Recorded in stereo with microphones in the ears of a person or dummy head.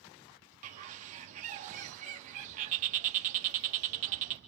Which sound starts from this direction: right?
A bird, at 0.6 s.